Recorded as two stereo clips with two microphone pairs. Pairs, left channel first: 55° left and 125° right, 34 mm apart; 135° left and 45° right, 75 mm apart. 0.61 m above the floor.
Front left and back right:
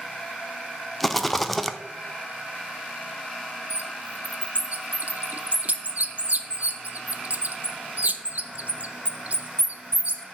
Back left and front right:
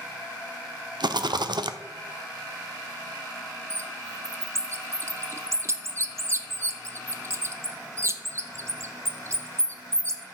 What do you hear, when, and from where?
1.0 s a rattle: 35° right, 0.5 m
3.7 s a bird: 95° right, 0.6 m